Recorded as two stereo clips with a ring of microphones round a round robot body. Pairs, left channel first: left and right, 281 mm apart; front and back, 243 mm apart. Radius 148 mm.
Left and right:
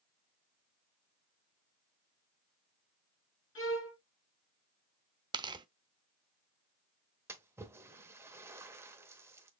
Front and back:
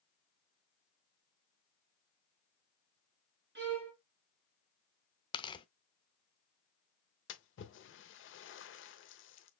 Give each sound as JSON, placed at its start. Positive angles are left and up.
{"t": 3.5, "sound": "a violin", "azimuth_deg": 135, "distance_m": 4.0}
{"t": 5.3, "sound": "tearing paper", "azimuth_deg": -40, "distance_m": 0.6}
{"t": 7.3, "sound": "a splash", "azimuth_deg": -10, "distance_m": 0.9}